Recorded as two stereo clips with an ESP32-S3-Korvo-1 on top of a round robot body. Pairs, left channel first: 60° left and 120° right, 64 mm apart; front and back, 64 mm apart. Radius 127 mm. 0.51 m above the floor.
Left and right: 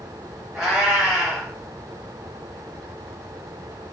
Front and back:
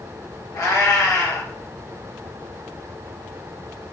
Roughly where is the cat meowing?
Ahead right.